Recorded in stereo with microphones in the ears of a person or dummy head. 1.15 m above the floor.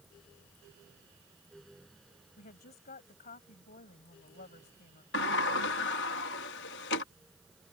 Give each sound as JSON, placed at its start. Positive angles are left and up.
{"t": 2.4, "sound": "a woman speaking", "side_deg": 40}
{"t": 5.1, "sound": "a sliding door", "side_deg": 55}